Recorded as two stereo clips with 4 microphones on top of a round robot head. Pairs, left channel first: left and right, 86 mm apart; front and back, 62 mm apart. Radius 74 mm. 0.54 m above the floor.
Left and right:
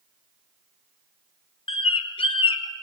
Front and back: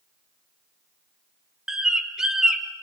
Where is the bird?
100° left, 1.5 m.